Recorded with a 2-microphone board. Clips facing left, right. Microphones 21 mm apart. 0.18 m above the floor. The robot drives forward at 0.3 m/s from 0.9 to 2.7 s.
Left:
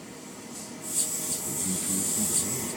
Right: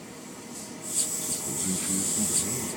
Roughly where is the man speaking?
Right.